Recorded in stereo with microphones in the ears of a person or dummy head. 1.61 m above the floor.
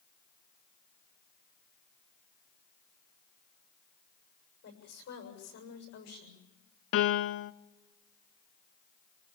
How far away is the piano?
About 0.7 m.